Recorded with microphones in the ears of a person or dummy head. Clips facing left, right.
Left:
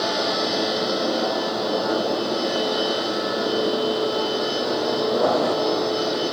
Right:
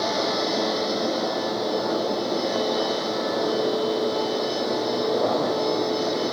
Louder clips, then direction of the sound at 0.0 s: Left 1 dB; centre (ahead or behind).